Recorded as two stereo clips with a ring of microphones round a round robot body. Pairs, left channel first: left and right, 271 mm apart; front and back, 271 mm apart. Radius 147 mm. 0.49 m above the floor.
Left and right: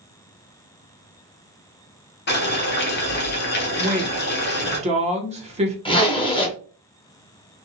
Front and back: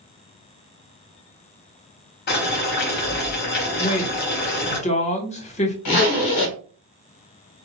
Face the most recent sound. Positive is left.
turn(degrees=15)